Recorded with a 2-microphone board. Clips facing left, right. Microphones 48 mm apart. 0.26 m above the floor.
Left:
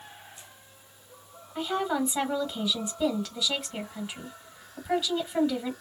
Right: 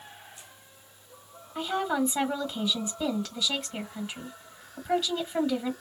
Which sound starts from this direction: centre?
A woman speaking, at 1.6 s.